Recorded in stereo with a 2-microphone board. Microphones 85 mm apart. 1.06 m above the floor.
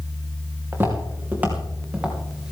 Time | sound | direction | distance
0.7 | footsteps | 30° right (ahead or behind) | 3.5 m